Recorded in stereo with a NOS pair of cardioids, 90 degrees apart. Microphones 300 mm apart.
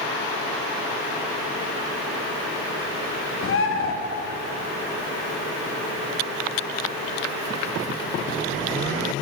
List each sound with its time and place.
3.4 s a bird: 45° left, 0.9 m